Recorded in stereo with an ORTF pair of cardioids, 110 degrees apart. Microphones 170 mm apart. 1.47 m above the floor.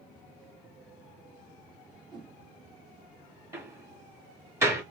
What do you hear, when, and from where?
2.1 s a whoosh: 25° right, 1.6 m
3.5 s a door slam: 15° right, 2.5 m